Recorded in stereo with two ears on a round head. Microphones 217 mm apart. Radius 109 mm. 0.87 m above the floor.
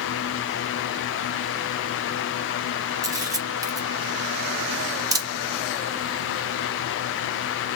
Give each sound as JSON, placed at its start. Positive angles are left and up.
{"t": 3.0, "sound": "a camera shutter", "side_deg": -15, "distance_m": 1.1}